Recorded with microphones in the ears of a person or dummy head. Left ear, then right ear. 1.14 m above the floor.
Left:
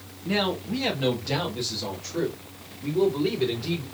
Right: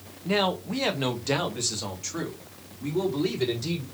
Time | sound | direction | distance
0.2 | a man speaking | 20° right (ahead or behind) | 0.9 m